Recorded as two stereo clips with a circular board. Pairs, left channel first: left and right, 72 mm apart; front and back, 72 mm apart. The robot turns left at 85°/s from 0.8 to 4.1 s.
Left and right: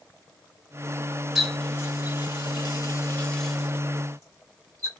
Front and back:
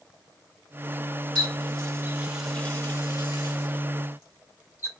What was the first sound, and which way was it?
A running tap, straight behind.